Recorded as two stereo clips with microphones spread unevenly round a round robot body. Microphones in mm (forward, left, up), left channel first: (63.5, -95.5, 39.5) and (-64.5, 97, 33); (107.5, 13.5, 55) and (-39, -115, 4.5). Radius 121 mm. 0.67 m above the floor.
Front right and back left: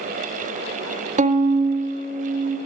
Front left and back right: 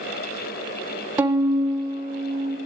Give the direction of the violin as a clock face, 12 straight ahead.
7 o'clock.